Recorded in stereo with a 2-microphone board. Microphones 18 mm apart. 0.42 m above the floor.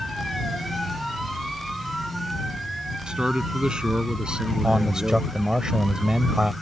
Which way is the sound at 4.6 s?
40° right (ahead or behind).